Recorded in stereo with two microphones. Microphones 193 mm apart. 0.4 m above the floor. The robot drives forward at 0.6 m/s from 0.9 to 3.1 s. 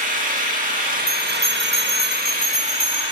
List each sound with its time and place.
0.0 s an engine running: 45° right (ahead or behind), 0.7 m; by 3.1 s 30° right (ahead or behind), 1.0 m
1.1 s a bell: 65° left (ahead or behind), 3.5 m; by 3.0 s 55° left (ahead or behind), 4 m